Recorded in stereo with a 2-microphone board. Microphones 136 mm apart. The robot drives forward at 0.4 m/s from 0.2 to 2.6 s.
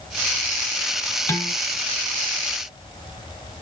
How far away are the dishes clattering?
About 1.5 m.